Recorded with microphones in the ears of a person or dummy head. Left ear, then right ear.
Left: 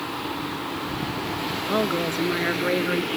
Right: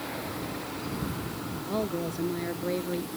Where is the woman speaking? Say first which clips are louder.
Left 7 dB; 40° left (ahead or behind).